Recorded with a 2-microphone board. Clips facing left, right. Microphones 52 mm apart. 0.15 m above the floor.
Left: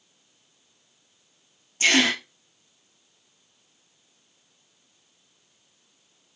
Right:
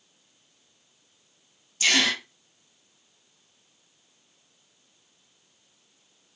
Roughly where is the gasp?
Left.